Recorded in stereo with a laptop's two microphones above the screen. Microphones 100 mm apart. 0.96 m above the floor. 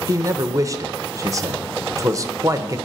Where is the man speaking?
30° right (ahead or behind), 0.6 m.